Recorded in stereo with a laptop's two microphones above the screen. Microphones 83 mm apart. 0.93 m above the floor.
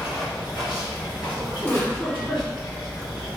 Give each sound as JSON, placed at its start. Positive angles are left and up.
{"t": 0.0, "sound": "running water", "side_deg": 65, "distance_m": 1.8}
{"t": 1.6, "sound": "a giggle", "side_deg": 30, "distance_m": 1.7}